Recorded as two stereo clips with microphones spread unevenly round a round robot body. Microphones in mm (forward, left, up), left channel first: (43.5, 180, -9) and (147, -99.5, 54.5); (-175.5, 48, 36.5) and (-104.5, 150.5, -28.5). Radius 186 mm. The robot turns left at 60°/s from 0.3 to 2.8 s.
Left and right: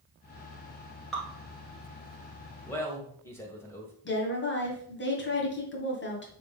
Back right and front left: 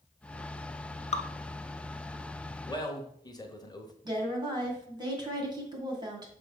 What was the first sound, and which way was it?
Dripping, 160° right.